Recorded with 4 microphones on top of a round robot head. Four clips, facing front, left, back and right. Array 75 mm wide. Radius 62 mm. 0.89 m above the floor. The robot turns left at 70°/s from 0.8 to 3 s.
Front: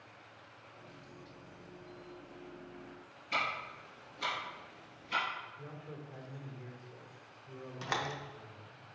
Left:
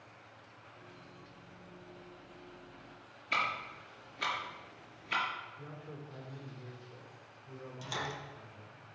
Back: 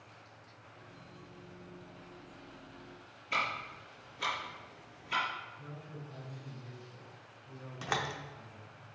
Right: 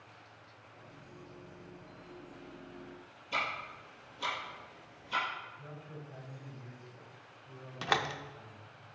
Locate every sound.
3.3 s ticking: 100° left, 3 m
5.6 s a man speaking: 60° left, 3 m
7.8 s a door slam: 95° right, 0.6 m